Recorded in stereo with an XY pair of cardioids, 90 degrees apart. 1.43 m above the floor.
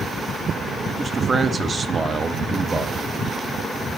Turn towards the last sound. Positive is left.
turn(degrees=-35)